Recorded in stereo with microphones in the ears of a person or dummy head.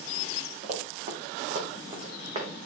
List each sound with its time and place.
0.6 s running footsteps: 45° right (ahead or behind), 4 m; by 2.5 s 30° right (ahead or behind), 3 m